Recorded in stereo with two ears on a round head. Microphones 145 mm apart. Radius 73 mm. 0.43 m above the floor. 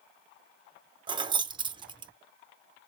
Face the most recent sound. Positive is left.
turn(degrees=-30)  # may be behind; listen again after turning